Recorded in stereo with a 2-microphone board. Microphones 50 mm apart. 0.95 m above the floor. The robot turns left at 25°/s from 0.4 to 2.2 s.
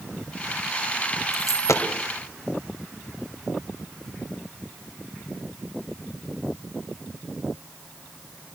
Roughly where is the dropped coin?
Left.